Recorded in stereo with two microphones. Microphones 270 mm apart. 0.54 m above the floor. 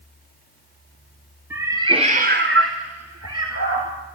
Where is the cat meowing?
10° right (ahead or behind), 2 m; by 3.9 s 55° right (ahead or behind), 2.5 m.